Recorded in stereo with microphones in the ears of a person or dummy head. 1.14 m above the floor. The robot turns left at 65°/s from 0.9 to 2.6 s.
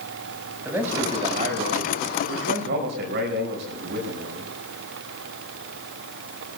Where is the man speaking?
10° right, 5.5 m; by 4.5 s 120° right, 5.5 m.